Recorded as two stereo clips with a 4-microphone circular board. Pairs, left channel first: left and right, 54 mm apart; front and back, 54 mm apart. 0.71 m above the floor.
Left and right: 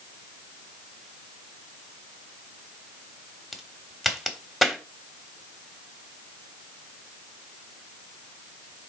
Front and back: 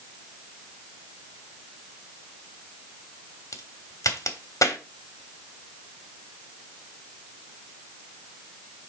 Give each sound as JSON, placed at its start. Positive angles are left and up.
{"t": 3.5, "sound": "a crack", "azimuth_deg": 0, "distance_m": 1.1}